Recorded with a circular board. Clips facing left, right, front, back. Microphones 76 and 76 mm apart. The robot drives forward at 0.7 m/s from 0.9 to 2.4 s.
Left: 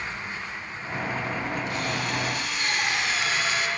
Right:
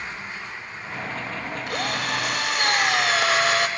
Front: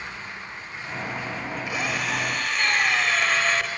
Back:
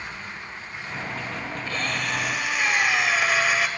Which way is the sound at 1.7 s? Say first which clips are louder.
Right 2 dB, even; 75° right.